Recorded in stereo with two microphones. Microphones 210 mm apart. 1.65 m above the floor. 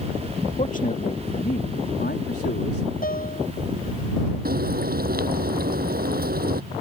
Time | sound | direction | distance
0.6 | a man speaking | 35° left (ahead or behind) | ?
3.0 | a piano | 45° left (ahead or behind) | ?
4.5 | frying | 50° right (ahead or behind) | ?